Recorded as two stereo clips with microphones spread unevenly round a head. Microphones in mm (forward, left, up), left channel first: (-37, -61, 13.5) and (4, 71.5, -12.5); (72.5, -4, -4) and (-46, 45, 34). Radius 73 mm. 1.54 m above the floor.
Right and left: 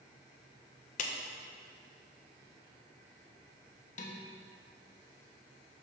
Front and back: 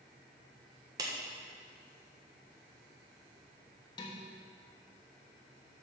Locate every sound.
1.0 s a clap: 140° right, 1.2 m
4.0 s dishes clattering: 90° right, 1.3 m